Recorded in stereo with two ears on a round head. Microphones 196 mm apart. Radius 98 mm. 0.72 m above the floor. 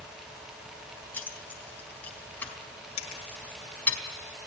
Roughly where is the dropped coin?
Left.